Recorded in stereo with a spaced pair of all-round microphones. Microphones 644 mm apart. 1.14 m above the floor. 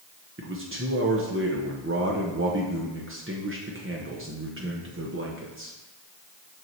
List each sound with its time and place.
0.4 s a man speaking: 20° right (ahead or behind), 0.9 m